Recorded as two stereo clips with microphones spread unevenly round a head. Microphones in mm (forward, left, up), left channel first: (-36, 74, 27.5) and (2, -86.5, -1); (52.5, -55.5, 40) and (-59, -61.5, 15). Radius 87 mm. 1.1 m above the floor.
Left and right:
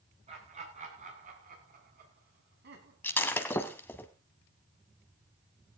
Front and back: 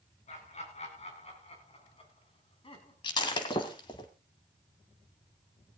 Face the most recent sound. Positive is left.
turn(degrees=35)